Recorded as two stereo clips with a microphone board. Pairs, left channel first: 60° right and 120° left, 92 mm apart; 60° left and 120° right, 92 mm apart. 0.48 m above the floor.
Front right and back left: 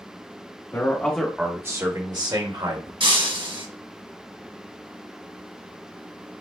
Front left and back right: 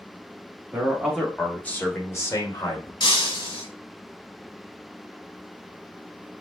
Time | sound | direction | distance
0.7 | a man speaking | 65° right | 1.1 m
3.0 | breaking glass | 95° left | 1.5 m